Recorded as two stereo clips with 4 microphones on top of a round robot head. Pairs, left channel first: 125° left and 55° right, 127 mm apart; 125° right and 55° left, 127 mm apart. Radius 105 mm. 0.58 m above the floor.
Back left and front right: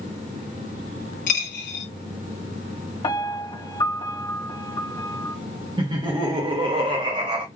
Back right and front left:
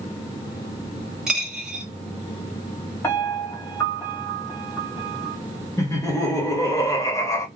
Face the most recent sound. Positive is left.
turn(degrees=-75)